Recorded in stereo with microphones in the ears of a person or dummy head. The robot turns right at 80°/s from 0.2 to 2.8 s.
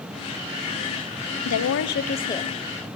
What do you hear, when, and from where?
1.4 s a woman speaking: 90° left, 0.6 m; by 2.6 s 175° right, 0.6 m